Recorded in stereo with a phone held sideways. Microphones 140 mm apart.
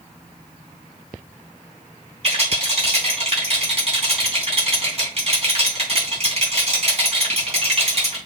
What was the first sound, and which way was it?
A rattle, 45° right (ahead or behind).